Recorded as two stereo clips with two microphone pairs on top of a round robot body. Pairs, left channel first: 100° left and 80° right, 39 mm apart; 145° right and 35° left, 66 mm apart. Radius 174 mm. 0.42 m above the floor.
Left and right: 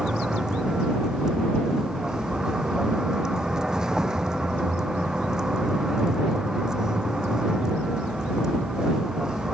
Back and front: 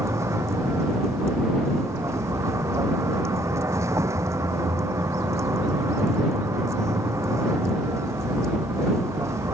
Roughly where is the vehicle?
Ahead.